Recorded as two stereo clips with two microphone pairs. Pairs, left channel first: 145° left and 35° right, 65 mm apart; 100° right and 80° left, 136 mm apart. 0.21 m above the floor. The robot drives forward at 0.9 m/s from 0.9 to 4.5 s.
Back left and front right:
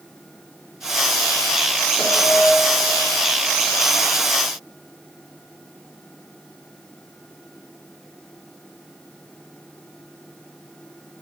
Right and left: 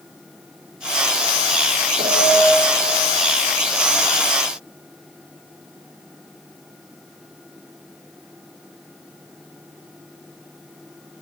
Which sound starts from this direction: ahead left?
A piano, at 2.0 s.